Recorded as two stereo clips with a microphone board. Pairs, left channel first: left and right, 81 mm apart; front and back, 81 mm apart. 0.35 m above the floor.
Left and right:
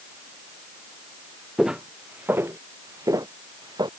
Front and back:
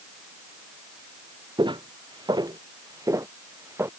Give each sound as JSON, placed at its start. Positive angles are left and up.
{"t": 1.6, "sound": "footsteps", "azimuth_deg": -175}